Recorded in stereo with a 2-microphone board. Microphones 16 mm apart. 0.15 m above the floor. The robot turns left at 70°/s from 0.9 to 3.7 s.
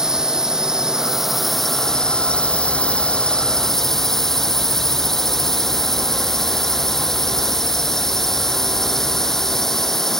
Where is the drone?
140° right; by 10.2 s 25° left.